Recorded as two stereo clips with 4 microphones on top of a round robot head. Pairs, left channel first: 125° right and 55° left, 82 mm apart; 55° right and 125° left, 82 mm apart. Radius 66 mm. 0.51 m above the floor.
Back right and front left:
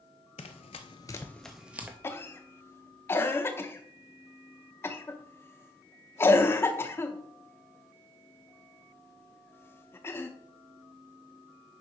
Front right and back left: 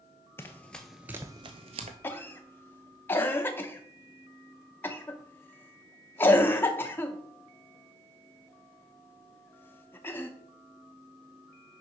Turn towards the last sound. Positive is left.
turn(degrees=-95)